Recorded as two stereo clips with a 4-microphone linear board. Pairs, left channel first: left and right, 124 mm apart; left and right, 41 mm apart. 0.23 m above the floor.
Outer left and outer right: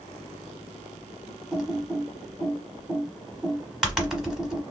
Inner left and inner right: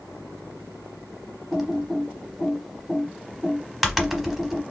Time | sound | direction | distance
1.5 | typing on a keyboard | 5° right (ahead or behind) | 0.9 m